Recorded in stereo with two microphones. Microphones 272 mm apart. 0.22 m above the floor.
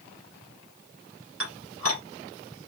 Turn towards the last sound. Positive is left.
turn(degrees=-55)  # may be behind; listen again after turning